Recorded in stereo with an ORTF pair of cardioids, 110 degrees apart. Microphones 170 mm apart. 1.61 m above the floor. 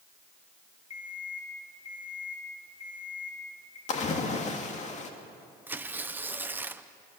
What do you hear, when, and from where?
0.9 s an alarm clock: 40° left, 4.5 m
3.9 s a splash: 45° left, 2 m
5.7 s tearing paper: 10° right, 0.8 m